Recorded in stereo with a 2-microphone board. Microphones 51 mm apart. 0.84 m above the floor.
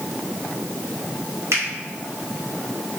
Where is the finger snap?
70° right (ahead or behind), 2.0 m.